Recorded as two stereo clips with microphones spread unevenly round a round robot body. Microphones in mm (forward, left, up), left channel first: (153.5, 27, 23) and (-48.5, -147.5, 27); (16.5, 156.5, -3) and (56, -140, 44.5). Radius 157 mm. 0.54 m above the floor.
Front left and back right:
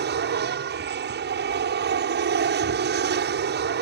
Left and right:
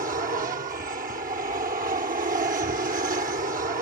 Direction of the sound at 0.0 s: 140° right.